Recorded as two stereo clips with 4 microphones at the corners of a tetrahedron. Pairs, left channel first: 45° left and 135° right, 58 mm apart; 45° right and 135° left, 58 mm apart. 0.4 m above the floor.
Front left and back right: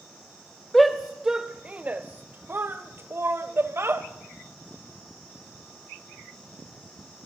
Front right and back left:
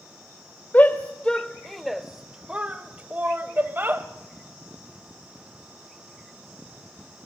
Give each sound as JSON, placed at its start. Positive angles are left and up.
{"t": 0.7, "sound": "a shout", "azimuth_deg": -40, "distance_m": 0.9}